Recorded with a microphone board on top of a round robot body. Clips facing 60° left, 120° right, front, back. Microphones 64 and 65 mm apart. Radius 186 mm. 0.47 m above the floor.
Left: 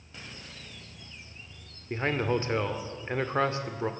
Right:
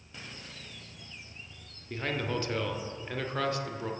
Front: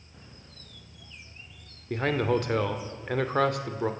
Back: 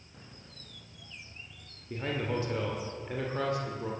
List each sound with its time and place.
1.9 s a man speaking: straight ahead, 2 m